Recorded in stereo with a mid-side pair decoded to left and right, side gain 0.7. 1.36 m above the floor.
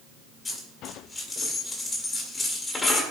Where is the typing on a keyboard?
I don't hear typing on a keyboard.